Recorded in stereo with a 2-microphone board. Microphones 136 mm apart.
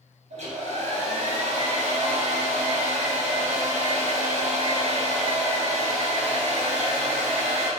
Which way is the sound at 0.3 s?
55° right (ahead or behind).